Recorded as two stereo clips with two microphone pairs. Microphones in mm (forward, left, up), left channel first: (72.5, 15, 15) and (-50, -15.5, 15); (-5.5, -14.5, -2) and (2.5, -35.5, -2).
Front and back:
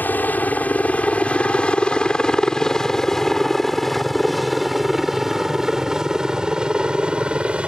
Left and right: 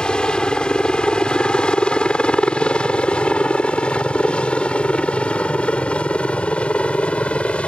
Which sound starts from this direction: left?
A helicopter, at 0.0 s.